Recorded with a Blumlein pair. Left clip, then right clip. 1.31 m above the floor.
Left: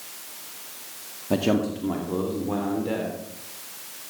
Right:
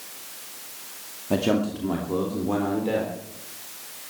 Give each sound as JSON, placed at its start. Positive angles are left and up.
{"t": 1.3, "sound": "a man speaking", "azimuth_deg": 0, "distance_m": 2.0}